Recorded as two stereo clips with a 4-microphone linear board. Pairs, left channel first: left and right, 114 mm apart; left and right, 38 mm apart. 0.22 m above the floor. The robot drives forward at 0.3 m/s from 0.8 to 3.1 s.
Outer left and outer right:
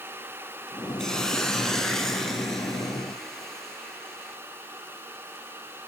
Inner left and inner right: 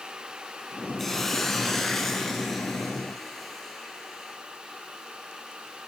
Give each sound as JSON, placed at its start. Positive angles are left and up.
{"t": 1.0, "sound": "a hiss", "side_deg": 5, "distance_m": 0.5}